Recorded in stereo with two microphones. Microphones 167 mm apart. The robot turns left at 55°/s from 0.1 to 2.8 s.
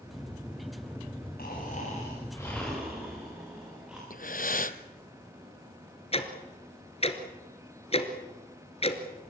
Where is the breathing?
60° left (ahead or behind), 0.9 m.